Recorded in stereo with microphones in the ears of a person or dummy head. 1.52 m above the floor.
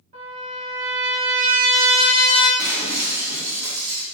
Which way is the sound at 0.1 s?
45° right (ahead or behind).